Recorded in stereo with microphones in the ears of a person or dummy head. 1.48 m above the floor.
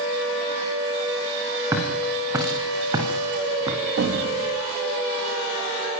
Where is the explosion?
85° right, 2.5 m.